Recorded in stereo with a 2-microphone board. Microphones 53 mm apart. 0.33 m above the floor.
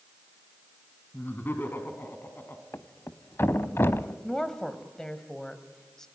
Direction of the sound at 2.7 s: 50° left (ahead or behind).